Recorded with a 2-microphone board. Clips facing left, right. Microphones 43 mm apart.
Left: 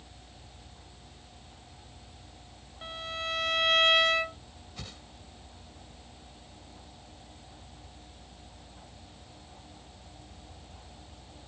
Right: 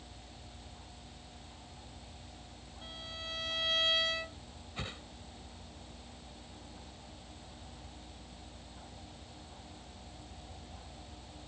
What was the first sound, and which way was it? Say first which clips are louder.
A violin: left 9 dB; 70° left (ahead or behind).